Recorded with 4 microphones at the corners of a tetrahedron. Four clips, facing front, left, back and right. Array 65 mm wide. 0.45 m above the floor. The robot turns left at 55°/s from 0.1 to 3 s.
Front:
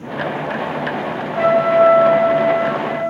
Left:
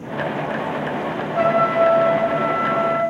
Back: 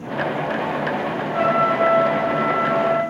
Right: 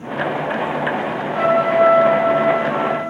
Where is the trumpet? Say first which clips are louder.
Right 2 dB, front 5 dB; straight behind, 1.6 m; by 3.0 s 90° left, 1.6 m.